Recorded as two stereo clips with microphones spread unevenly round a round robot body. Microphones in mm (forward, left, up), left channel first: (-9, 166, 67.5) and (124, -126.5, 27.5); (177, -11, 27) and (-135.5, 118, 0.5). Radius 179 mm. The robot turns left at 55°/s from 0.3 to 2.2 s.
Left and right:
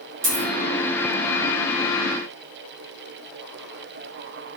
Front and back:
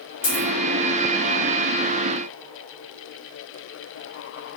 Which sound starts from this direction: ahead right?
A dropped coin, at 0.2 s.